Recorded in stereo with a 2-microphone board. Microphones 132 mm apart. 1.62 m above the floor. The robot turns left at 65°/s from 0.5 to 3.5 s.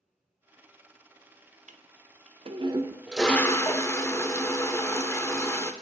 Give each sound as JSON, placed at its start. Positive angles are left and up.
{"t": 1.7, "sound": "a toilet flushing", "azimuth_deg": -80, "distance_m": 0.6}